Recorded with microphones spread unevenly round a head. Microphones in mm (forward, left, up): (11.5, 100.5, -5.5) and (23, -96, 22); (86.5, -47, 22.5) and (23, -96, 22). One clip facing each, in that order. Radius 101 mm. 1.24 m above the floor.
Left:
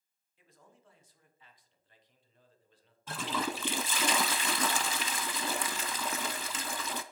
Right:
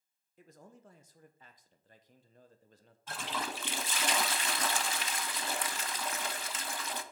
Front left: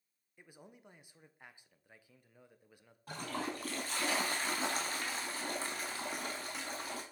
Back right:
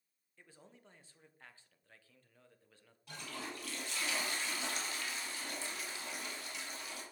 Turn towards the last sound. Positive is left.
turn(degrees=105)